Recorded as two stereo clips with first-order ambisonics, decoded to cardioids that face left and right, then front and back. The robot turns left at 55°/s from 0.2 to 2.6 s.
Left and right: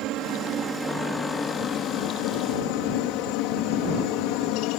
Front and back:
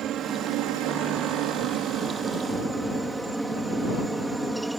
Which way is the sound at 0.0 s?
125° right.